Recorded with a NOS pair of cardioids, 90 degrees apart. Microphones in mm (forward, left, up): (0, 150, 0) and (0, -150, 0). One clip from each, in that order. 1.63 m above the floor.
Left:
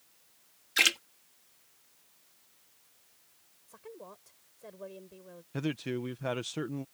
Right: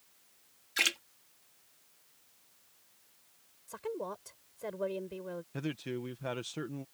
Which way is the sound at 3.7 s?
70° right.